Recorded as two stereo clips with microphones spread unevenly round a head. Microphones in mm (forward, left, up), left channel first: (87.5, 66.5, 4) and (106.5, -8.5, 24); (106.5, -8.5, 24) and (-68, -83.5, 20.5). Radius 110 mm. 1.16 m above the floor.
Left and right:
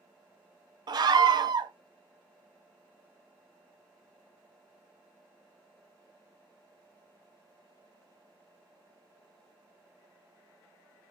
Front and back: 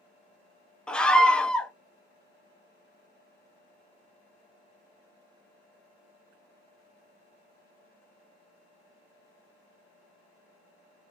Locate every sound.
0.9 s a scream: 60° right, 0.6 m